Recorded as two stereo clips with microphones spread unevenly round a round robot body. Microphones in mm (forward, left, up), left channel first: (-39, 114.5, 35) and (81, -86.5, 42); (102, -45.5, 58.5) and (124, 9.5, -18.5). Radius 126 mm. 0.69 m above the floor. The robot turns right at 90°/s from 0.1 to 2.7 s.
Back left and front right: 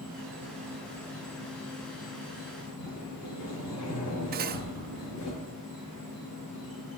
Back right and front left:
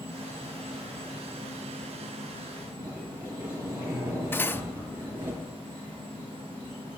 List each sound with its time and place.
0.0 s an insect: 70° right, 4 m; by 7.0 s 160° left, 4 m
2.8 s a sliding door: 110° left, 4 m
4.3 s cutlery clinking: 10° right, 0.5 m